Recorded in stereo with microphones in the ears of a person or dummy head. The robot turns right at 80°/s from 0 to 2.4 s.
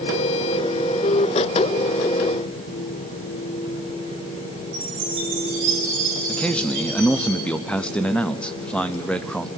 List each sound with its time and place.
4.7 s a chime: 40° right (ahead or behind), 5.5 m
6.3 s a man speaking: 10° left (ahead or behind), 0.7 m